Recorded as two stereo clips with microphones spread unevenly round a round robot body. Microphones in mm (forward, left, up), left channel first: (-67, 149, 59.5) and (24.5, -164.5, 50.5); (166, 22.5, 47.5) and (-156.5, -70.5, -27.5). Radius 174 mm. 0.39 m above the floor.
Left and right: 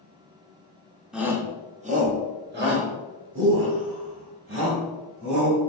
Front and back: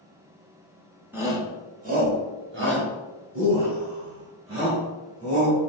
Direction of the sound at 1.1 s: 155° right.